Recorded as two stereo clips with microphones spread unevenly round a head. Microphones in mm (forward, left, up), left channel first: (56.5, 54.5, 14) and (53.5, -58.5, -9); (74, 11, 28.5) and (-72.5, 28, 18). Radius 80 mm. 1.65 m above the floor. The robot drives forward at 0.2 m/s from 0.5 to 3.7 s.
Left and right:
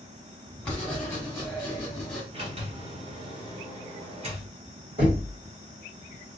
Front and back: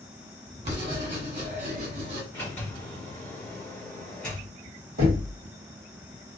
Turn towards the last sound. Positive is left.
turn(degrees=-140)